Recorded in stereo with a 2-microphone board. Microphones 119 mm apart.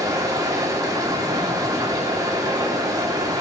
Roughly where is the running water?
Right.